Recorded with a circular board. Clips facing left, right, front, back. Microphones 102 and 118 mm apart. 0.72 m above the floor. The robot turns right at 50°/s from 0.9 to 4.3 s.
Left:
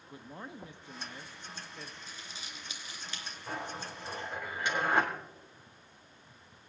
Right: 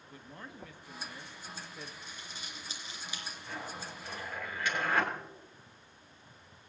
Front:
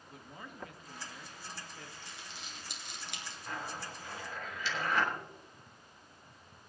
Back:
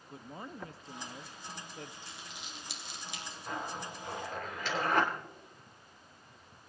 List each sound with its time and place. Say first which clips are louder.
0.1 s a man speaking: left 3 dB, back 5 dB; 145° left, 0.6 m; by 1.9 s 165° right, 0.6 m
2.0 s crumpling: even, back 1 dB; 70° right, 2.5 m; by 3.4 s 5° right, 2.5 m
3.5 s a zipper: left 4 dB, back 3 dB; 110° left, 3 m; by 5.1 s 155° left, 3 m